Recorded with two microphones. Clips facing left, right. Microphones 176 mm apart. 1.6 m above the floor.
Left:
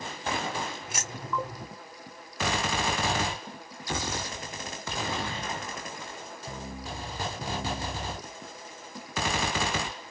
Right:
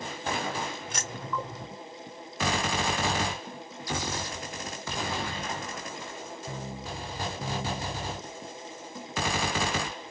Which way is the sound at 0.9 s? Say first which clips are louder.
Even; 5° left (ahead or behind).